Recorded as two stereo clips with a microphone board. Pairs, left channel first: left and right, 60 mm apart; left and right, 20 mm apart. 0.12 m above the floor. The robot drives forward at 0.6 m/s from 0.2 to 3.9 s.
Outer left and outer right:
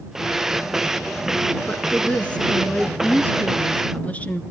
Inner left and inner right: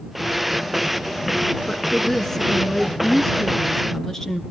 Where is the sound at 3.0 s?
25° left (ahead or behind), 1.4 m.